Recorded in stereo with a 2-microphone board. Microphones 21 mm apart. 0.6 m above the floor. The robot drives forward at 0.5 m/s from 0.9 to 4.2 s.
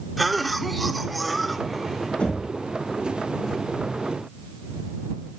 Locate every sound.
0.2 s a cough: 5° right (ahead or behind), 1.2 m
2.2 s knocking: 80° left, 6 m; by 2.5 s 75° left (ahead or behind), 6 m